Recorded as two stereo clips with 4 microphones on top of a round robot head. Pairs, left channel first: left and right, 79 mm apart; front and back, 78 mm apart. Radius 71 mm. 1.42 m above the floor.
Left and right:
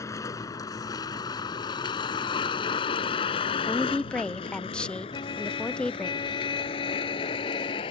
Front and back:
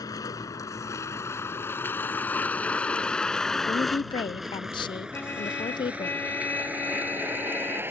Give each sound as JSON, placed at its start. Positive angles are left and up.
{"t": 0.0, "sound": "a vehicle", "azimuth_deg": 40}
{"t": 3.7, "sound": "a woman speaking", "azimuth_deg": 10}
{"t": 5.1, "sound": "a trumpet", "azimuth_deg": 65}